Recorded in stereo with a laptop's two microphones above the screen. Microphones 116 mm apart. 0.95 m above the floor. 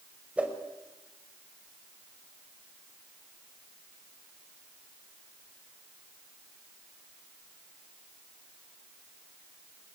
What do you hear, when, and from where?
0.4 s a whoosh: 10° right (ahead or behind), 5 m